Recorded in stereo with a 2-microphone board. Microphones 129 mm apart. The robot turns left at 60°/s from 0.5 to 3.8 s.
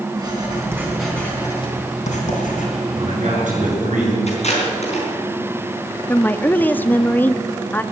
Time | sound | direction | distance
0.2 | writing | 150° right | 3.5 m
2.9 | a man speaking | 40° right | 7.5 m
4.3 | tape being pulled | 55° left (ahead or behind) | 4.5 m
6.1 | a woman speaking | 15° left (ahead or behind) | 0.5 m